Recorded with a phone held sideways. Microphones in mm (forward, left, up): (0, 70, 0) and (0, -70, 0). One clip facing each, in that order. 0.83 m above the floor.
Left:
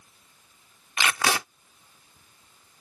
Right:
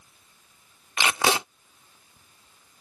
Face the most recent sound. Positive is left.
turn(degrees=-25)  # may be behind; listen again after turning